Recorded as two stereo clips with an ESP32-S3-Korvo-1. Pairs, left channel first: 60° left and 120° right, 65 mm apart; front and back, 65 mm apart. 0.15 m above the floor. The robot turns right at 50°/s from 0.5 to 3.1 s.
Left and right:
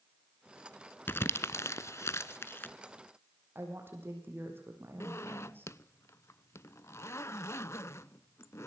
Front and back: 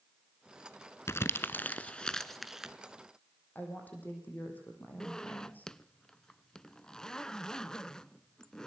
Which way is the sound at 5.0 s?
75° left.